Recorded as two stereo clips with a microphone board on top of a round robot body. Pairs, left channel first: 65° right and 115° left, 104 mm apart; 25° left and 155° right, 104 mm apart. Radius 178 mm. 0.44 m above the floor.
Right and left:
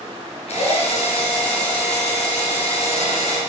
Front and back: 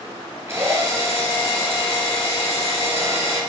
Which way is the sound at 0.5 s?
90° right.